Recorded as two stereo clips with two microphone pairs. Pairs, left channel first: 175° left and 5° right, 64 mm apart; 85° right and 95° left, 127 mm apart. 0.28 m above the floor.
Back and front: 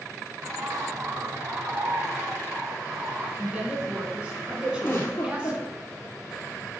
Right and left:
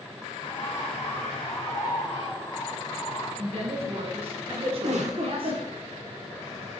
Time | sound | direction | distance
0.4 | a bird | 35° right | 2.5 m
3.4 | a woman speaking | 65° left | 2 m
4.8 | a giggle | 120° left | 2.5 m